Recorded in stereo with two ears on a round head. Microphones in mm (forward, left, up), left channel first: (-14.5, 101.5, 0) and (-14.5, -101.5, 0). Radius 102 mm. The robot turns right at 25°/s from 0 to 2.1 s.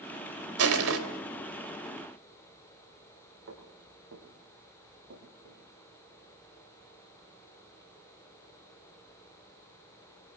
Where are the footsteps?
55° right (ahead or behind), 9.5 m; by 5.6 s 65° right (ahead or behind), 10.5 m.